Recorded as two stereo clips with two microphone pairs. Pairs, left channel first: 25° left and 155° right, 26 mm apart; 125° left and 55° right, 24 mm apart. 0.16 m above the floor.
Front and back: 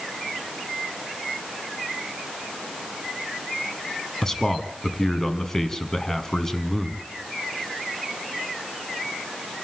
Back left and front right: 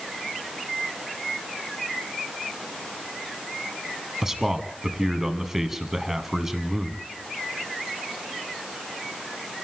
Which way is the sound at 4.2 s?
10° right.